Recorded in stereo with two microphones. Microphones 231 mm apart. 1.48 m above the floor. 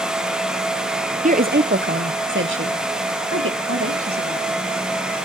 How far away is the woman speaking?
About 0.7 m.